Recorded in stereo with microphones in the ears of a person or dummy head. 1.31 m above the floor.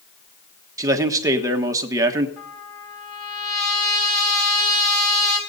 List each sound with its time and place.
0.8 s a man speaking: 15° right (ahead or behind), 1.4 m
2.4 s a trumpet: centre (ahead or behind), 3 m